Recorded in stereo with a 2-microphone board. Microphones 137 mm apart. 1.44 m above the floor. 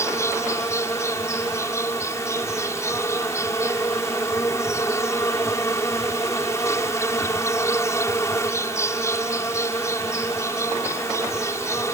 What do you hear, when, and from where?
0.0 s an insect: 20° left (ahead or behind)